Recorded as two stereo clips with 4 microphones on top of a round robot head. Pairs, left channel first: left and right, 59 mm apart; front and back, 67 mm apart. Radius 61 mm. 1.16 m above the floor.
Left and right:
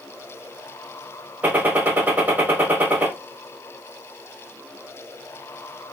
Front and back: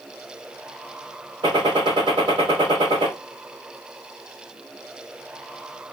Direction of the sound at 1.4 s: 150° right.